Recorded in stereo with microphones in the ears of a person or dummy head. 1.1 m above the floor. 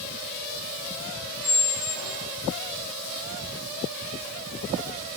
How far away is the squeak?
About 1.5 m.